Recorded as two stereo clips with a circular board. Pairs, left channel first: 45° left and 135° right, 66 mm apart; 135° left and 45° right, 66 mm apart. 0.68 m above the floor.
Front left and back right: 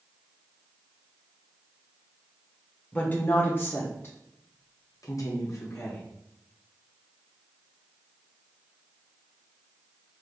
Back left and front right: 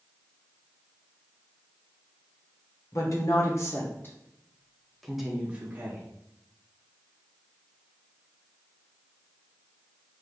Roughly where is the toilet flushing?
No toilet flushing in this recording.